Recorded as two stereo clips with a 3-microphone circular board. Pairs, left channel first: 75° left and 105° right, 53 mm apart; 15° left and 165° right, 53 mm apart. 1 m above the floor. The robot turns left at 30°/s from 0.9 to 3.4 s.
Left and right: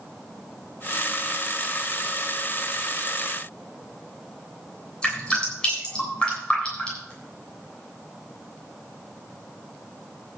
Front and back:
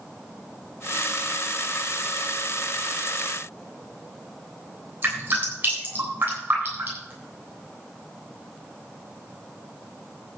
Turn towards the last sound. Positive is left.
turn(degrees=150)